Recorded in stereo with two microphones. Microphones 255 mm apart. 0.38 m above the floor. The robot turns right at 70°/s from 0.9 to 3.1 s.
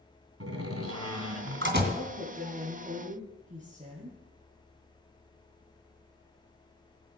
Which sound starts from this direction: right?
A door slam, at 0.4 s.